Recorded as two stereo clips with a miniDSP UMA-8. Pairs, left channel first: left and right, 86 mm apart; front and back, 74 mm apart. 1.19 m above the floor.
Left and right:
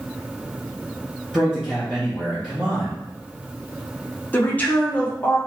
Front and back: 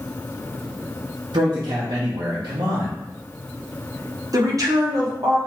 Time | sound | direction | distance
1.3 | a man speaking | 175° left | 0.7 m
4.3 | a woman speaking | 155° left | 0.9 m